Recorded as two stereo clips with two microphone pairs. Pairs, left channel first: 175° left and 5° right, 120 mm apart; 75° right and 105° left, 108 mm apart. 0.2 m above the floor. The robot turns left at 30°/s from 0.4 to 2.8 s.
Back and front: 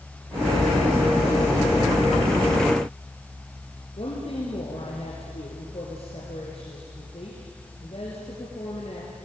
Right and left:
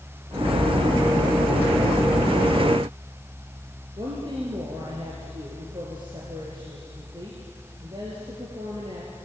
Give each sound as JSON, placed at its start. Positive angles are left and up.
{"t": 4.0, "sound": "a woman speaking", "azimuth_deg": 145, "distance_m": 4.5}